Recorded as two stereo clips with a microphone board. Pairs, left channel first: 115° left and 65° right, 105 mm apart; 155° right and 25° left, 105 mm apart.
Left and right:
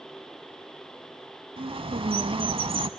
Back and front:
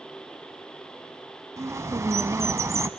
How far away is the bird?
About 0.8 m.